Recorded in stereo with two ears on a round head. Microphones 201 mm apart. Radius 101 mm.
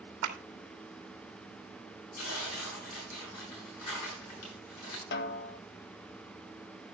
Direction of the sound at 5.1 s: 50° left (ahead or behind).